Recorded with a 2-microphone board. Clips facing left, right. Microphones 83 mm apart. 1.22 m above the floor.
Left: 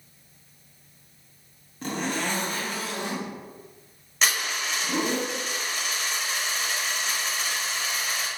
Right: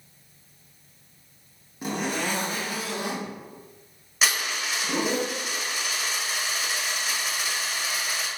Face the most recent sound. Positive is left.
turn(degrees=-5)  # may be behind; listen again after turning